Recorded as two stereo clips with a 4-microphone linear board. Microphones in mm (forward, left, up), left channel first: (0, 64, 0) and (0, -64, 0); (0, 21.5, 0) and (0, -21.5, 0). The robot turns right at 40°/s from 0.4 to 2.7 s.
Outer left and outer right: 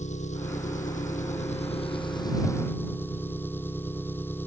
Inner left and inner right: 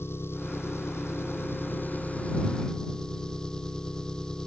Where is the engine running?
70° left; by 4.5 s 165° left.